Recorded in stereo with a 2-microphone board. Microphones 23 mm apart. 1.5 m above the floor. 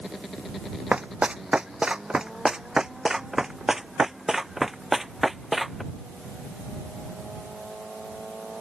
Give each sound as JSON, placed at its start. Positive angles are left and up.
{"t": 0.9, "sound": "running footsteps", "side_deg": -60}